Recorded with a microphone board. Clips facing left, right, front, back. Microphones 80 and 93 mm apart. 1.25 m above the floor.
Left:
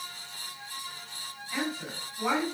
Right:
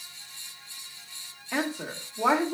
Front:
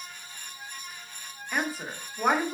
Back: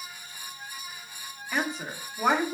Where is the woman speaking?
85° right, 1.3 m.